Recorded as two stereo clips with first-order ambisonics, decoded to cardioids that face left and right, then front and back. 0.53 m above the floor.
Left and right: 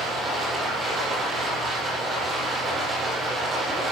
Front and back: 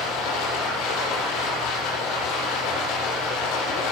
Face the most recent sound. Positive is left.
turn(degrees=-20)